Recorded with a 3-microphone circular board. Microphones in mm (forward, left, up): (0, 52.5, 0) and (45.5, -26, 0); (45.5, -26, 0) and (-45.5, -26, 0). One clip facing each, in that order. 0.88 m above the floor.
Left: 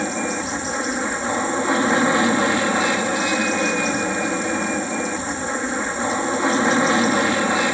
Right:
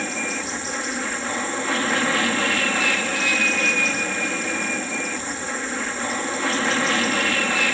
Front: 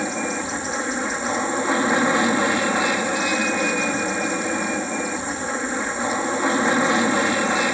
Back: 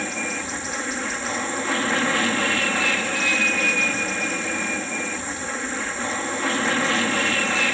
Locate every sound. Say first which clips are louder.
0.0 s an aircraft: left 4 dB, front 4 dB; 60° left